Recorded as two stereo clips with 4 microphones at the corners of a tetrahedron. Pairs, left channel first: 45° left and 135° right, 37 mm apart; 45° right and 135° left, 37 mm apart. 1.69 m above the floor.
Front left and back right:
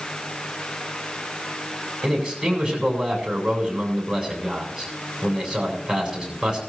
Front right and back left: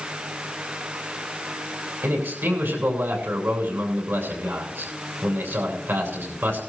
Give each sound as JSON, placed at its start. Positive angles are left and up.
{"t": 2.0, "sound": "a man speaking", "azimuth_deg": 145, "distance_m": 7.0}